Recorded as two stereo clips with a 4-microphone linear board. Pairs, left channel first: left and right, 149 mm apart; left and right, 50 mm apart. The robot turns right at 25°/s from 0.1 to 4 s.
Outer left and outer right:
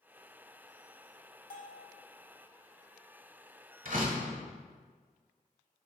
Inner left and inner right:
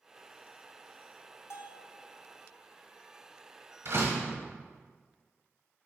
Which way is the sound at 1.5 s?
75° left (ahead or behind).